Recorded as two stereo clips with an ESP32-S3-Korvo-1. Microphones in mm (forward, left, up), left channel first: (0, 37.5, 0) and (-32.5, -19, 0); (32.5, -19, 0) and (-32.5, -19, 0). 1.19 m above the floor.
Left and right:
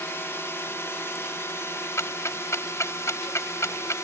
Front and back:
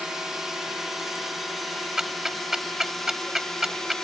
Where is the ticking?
95° left.